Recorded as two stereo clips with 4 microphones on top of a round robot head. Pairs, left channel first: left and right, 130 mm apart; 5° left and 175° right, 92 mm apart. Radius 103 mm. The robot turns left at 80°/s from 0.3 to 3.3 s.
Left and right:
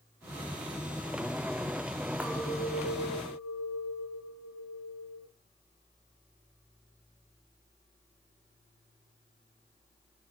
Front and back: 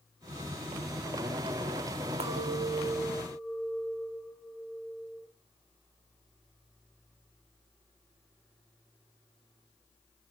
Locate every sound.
2.2 s a clink: 175° right, 1.9 m; by 5.3 s 100° left, 1.9 m